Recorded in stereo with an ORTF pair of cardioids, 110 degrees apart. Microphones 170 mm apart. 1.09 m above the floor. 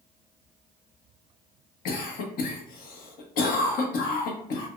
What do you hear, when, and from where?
1.9 s a cough: 60° left, 0.9 m